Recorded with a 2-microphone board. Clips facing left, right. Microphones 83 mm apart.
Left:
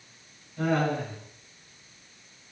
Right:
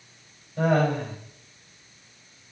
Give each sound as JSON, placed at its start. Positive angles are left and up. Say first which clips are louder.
{"t": 0.6, "sound": "laughter", "louder": "right 4 dB", "side_deg": -65, "distance_m": 4.5}